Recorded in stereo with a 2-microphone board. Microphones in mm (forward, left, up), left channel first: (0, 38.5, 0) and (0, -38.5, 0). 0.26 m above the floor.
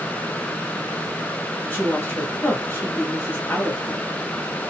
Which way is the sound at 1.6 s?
25° left (ahead or behind).